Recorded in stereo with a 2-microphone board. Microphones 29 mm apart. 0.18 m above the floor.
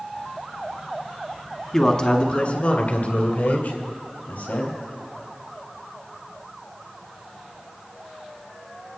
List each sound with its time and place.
1.7 s a man speaking: 15° left (ahead or behind), 1.0 m; by 4.8 s 60° left (ahead or behind), 4 m